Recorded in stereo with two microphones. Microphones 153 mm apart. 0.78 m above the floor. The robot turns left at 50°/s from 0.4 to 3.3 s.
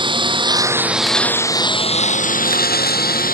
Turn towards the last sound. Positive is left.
turn(degrees=70)  # may be behind; listen again after turning